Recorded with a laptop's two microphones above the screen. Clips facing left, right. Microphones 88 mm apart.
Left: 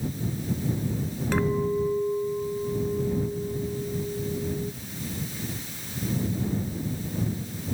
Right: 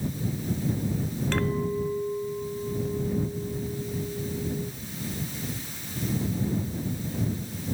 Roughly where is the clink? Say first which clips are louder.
Left 4 dB; centre.